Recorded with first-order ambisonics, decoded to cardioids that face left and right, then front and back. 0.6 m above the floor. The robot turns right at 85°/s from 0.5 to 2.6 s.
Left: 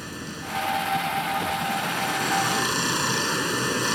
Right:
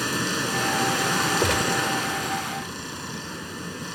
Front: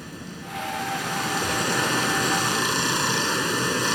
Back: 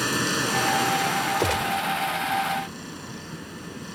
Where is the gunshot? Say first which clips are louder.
Right 3 dB, front 1 dB; 130° right; by 1.9 s 90° right.